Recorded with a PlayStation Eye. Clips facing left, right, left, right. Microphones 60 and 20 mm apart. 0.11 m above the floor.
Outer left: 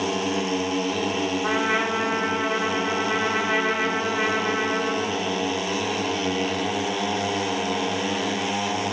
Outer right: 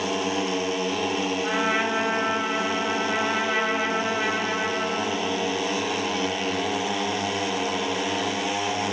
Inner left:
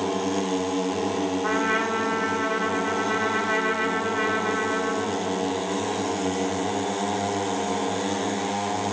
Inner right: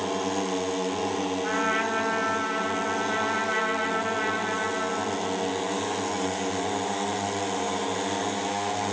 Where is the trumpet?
85° left, 2.5 m.